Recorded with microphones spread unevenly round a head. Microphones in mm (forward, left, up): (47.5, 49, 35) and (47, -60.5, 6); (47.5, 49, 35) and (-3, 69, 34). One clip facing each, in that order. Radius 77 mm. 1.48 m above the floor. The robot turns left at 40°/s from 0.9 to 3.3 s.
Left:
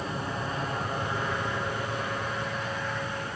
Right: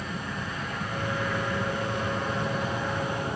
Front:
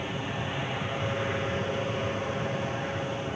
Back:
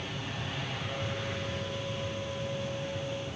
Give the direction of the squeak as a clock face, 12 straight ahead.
No squeak in this recording.